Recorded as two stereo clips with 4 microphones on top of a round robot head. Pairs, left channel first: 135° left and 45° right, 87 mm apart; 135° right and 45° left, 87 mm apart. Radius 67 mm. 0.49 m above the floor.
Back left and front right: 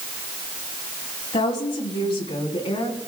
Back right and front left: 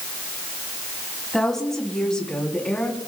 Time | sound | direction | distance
1.3 | a woman speaking | 140° left | 4 m